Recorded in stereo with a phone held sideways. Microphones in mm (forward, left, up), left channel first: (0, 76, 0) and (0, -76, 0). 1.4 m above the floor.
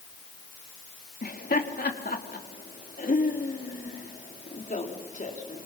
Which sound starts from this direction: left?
Laughter, at 1.2 s.